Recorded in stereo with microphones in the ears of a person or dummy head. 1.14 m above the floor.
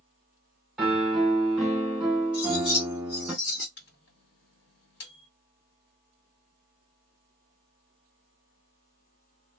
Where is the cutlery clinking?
50° left (ahead or behind), 1.0 m.